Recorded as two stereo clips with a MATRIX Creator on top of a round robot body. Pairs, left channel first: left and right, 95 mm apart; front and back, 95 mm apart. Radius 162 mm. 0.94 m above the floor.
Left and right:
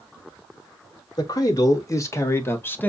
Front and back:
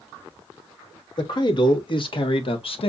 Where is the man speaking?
40° left, 2.5 m; by 2.9 s 20° left, 1.7 m.